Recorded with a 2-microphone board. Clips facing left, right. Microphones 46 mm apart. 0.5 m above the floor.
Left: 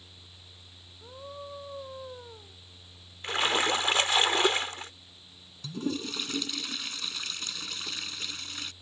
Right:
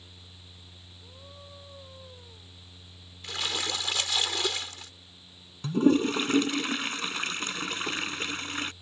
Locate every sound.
1.0 s a scream: 35° left (ahead or behind)
3.2 s a splash: 35° left (ahead or behind)
5.6 s a toilet flushing: 40° right (ahead or behind)